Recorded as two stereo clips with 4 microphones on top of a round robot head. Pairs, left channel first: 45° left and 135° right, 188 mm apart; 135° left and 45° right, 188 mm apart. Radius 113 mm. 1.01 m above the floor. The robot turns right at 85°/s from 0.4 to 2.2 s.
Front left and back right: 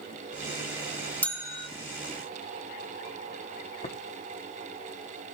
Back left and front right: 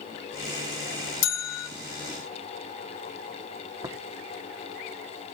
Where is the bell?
125° left, 0.9 m; by 1.7 s 165° left, 0.9 m.